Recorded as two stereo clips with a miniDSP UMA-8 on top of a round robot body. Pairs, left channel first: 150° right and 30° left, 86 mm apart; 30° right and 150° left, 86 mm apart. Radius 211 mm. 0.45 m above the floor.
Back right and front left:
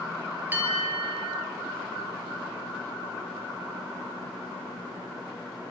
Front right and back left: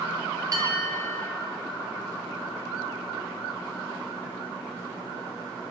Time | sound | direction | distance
0.5 | a bell | 100° left | 7 m